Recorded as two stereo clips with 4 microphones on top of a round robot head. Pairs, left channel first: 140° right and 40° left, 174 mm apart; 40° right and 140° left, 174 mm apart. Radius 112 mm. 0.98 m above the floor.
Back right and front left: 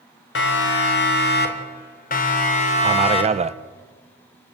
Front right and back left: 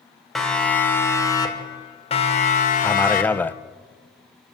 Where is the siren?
130° right, 3 m; by 3.5 s 75° right, 3.5 m.